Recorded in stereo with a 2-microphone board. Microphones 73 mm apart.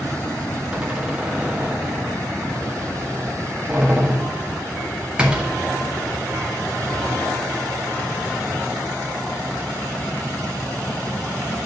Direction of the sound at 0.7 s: 10° right (ahead or behind).